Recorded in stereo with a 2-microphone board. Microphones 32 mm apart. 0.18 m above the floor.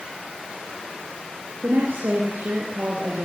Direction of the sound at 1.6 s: 65° right (ahead or behind).